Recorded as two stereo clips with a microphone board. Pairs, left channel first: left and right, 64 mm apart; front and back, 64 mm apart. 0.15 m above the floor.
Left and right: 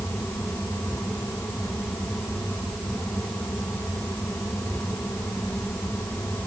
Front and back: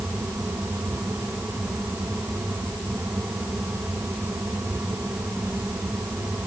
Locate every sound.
Only background noise.